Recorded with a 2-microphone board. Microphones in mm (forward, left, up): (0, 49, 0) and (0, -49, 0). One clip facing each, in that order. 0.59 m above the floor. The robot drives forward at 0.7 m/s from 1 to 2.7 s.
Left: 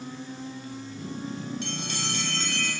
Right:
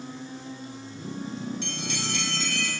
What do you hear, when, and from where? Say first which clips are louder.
1.6 s a bell: even; 55° left (ahead or behind), 6 m; by 2.7 s 50° left (ahead or behind), 6.5 m